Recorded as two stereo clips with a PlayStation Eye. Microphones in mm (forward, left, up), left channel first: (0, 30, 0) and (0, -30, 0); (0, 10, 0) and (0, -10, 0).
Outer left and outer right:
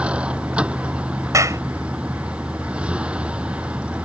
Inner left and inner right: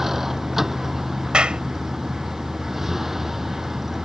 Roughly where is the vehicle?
Centre.